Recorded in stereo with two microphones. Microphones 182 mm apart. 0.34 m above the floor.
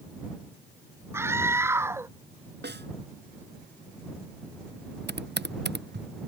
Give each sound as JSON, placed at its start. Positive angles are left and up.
{"t": 1.1, "sound": "a scream", "side_deg": -15}
{"t": 2.6, "sound": "a snare drum", "side_deg": -70}
{"t": 5.1, "sound": "typing on a keyboard", "side_deg": -65}